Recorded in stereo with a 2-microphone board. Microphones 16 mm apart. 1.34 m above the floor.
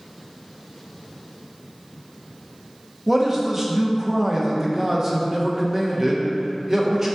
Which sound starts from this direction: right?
A man speaking, at 3.1 s.